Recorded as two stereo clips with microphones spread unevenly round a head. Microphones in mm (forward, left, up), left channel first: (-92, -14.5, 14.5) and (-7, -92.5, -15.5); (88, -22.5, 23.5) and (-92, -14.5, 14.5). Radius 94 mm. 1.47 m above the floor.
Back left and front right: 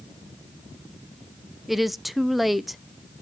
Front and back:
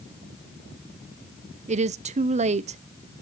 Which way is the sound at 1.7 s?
130° right.